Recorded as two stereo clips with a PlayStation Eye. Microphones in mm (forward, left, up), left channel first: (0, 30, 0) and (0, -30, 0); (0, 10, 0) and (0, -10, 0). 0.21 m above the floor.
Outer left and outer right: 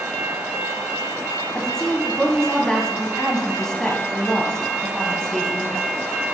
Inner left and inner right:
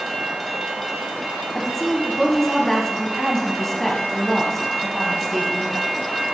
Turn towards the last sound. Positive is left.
turn(degrees=10)  # may be behind; listen again after turning